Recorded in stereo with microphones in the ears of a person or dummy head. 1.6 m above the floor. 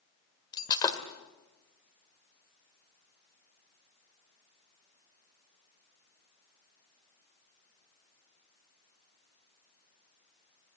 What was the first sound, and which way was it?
Breaking glass, 25° left (ahead or behind).